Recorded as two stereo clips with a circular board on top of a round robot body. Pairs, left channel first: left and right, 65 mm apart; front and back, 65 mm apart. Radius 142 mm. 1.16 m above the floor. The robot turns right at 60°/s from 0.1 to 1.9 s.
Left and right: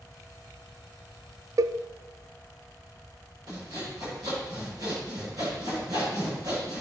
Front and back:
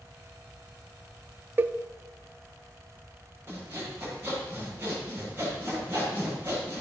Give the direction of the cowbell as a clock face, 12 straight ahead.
4 o'clock.